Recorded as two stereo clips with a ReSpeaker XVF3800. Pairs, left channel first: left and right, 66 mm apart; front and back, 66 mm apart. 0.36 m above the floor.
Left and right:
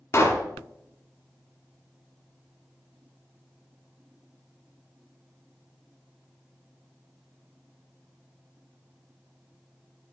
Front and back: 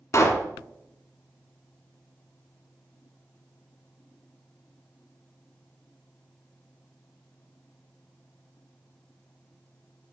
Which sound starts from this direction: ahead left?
A pop, at 0.1 s.